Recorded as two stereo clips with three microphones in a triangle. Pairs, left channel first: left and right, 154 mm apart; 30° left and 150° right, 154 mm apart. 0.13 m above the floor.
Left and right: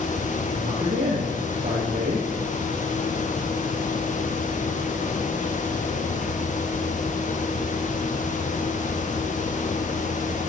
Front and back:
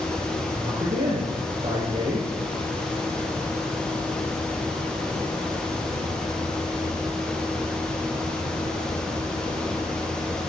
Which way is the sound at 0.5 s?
110° right.